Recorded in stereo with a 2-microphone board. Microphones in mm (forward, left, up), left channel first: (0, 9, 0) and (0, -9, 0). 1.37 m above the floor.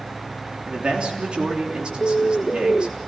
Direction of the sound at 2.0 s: 35° left (ahead or behind).